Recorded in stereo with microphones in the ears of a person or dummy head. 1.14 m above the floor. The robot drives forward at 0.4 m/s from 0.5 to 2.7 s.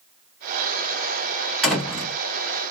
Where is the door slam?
Centre (ahead or behind), 1.9 m.